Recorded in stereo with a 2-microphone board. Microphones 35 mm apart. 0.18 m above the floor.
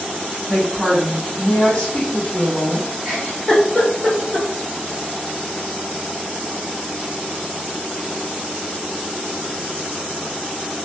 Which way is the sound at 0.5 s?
20° right (ahead or behind).